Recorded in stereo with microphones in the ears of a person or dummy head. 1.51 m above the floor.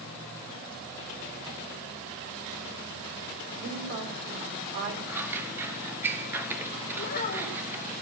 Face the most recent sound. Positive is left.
turn(degrees=45)  # may be behind; listen again after turning